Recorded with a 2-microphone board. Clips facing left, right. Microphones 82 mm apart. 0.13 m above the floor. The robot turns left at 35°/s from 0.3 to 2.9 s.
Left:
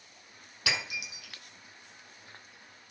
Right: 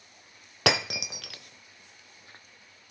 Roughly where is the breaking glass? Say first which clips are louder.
Right 8 dB; right.